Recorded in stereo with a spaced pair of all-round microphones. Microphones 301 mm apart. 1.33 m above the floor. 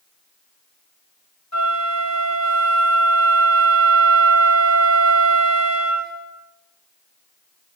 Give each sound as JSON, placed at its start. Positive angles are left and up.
{"t": 1.5, "sound": "a flute", "side_deg": 65, "distance_m": 6.0}